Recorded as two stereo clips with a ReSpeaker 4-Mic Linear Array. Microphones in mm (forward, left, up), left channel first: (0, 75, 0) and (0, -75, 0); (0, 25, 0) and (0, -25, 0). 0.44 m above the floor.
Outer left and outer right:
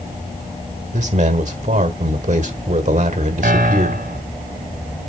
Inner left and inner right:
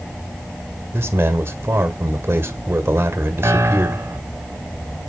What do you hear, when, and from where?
0.9 s a man speaking: 50° right (ahead or behind), 1.4 m
3.4 s a piano: 65° right (ahead or behind), 1.3 m